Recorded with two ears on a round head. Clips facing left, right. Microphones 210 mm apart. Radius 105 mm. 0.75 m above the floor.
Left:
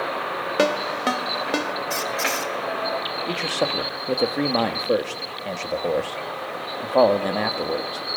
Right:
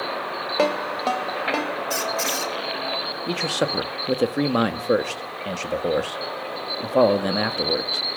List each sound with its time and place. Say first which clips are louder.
0.6 s a ringtone: left 1 dB; 20° left (ahead or behind), 2.5 m
1.9 s a squeak: even; 10° right (ahead or behind), 2 m
3.3 s a man speaking: right 1 dB; 15° right (ahead or behind), 1.5 m